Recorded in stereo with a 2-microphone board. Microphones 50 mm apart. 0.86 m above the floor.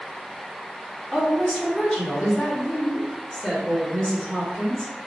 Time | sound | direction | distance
1.1 | a woman speaking | 20° left (ahead or behind) | 1.4 m